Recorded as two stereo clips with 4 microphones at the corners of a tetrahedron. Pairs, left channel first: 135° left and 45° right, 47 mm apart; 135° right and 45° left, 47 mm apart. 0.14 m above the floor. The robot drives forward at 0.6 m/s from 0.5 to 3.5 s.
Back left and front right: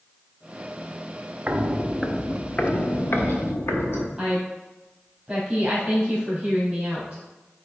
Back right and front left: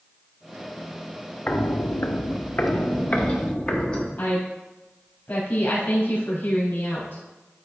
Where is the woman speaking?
125° right, 3 m.